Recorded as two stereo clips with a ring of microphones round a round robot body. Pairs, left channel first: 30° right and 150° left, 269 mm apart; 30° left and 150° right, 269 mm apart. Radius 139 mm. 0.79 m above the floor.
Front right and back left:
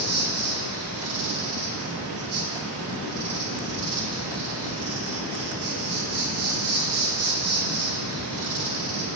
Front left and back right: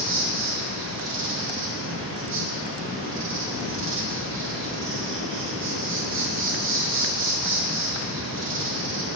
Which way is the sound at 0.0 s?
170° left.